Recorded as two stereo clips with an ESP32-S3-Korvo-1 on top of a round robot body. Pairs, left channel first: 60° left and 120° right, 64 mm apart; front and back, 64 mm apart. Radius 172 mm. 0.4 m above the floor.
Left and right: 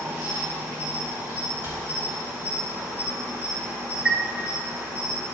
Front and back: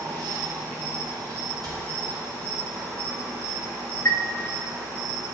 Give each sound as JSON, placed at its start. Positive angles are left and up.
{"t": 0.0, "sound": "an insect", "azimuth_deg": -170, "distance_m": 3.5}
{"t": 1.6, "sound": "a cupboard door", "azimuth_deg": -170, "distance_m": 4.0}
{"t": 4.0, "sound": "a chime", "azimuth_deg": -35, "distance_m": 1.1}